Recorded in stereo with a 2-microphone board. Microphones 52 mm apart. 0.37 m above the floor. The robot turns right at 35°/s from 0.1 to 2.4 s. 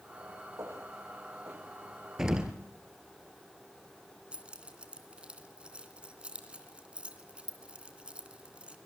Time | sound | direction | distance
0.6 | footsteps | 70° right (ahead or behind) | 9 m
2.2 | an explosion | 10° right (ahead or behind) | 2 m
4.3 | keys jangling | 20° right (ahead or behind) | 2.5 m